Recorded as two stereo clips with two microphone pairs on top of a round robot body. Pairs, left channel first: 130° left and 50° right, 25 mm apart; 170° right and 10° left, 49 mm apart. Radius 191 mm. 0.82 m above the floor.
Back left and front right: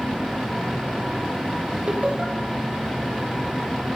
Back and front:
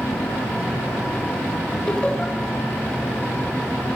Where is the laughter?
95° right, 6 m.